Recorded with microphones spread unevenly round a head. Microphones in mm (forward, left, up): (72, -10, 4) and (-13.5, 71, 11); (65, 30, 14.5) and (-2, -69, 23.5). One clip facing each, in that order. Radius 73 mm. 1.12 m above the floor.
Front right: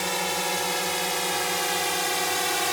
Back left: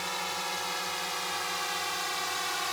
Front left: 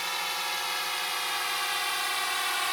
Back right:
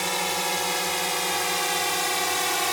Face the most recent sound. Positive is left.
turn(degrees=-85)